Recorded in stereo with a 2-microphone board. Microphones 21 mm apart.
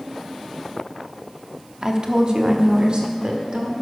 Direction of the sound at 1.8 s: 35° right (ahead or behind).